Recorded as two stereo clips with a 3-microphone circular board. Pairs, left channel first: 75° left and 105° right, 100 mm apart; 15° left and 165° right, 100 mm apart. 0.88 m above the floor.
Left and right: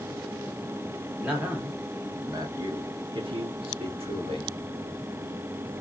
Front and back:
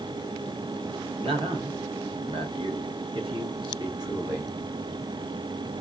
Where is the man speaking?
Straight behind, 1.5 m; by 4.5 s 110° right, 1.7 m.